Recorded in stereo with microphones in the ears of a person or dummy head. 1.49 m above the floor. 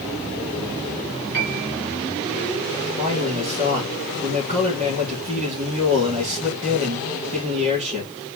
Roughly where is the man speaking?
Right.